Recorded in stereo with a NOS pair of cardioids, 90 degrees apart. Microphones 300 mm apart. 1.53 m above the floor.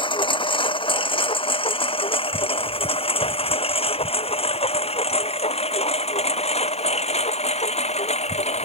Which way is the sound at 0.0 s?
15° left.